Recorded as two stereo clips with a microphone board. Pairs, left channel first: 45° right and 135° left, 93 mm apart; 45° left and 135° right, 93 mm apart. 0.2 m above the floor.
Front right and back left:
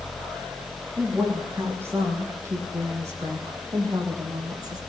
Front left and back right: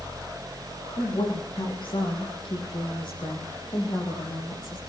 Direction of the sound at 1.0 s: 70° left.